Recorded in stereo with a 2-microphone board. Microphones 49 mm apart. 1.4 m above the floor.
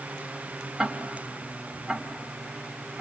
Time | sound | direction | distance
0.8 | ticking | 5° right (ahead or behind) | 2.0 m